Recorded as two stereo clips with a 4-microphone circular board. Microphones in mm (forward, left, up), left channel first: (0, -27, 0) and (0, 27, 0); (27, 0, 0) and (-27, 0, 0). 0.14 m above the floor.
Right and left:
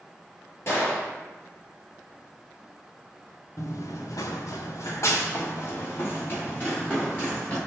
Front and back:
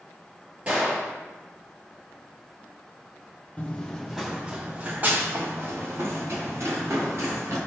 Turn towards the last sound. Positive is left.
turn(degrees=-150)